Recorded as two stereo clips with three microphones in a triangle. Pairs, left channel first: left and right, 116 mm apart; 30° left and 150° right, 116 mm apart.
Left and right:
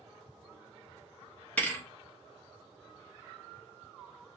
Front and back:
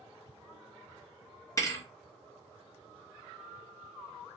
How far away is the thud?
About 0.6 m.